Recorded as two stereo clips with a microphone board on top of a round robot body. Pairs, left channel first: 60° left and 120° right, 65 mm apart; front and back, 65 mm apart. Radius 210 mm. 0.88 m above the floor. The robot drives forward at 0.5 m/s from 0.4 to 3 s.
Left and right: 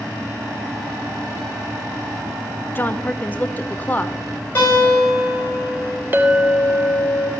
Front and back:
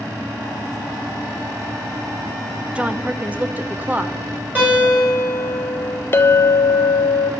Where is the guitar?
120° left, 6 m.